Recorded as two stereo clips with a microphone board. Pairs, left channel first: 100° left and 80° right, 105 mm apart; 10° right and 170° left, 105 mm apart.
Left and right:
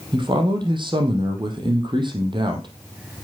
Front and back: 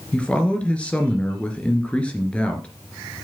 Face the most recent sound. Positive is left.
turn(degrees=-85)